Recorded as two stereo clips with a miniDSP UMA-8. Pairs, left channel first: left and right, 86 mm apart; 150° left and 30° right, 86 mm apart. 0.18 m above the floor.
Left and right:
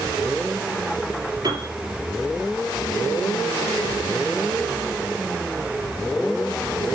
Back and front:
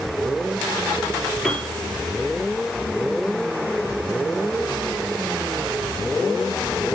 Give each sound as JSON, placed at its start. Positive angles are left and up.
{"t": 1.4, "sound": "a piano", "azimuth_deg": -120, "distance_m": 3.5}